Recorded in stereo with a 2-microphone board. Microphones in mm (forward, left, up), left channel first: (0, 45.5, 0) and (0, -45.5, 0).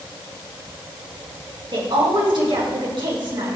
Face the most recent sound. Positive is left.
turn(degrees=-70)  # may be behind; listen again after turning